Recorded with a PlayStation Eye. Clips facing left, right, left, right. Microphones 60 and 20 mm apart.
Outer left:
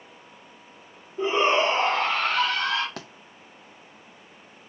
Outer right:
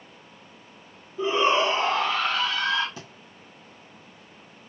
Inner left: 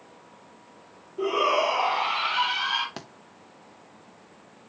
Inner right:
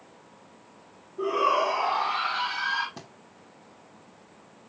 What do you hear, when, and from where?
1.2 s a shout: 40° left (ahead or behind), 3.5 m; by 2.9 s 60° left (ahead or behind), 3.5 m
3.0 s a thud: 65° left (ahead or behind), 1.8 m